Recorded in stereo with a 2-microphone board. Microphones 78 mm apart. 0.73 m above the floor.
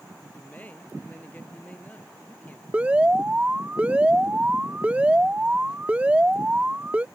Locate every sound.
0.3 s a man speaking: 20° left (ahead or behind)
2.7 s an alarm: 20° right (ahead or behind)